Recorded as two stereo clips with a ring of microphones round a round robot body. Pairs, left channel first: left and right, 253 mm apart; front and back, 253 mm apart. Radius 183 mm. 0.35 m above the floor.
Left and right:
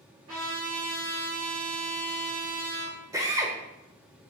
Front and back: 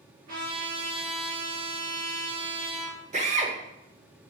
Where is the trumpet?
140° right, 3.5 m.